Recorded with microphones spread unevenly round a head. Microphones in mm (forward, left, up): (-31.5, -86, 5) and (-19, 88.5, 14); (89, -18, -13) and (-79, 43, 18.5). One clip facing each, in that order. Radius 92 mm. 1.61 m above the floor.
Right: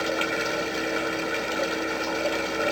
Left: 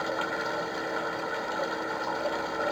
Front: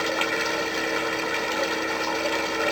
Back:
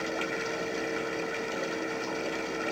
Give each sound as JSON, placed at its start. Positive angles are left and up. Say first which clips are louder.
{"t": 0.0, "sound": "running water", "louder": "right 4 dB, front 5 dB", "azimuth_deg": -35}